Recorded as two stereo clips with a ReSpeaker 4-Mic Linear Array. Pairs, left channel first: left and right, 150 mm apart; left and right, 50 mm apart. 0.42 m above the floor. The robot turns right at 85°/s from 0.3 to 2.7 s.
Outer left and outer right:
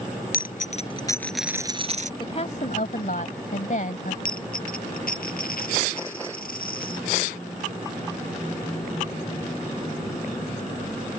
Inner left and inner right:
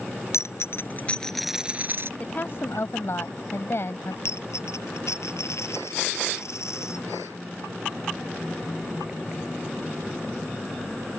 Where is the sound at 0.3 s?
95° left; by 2.1 s 120° right.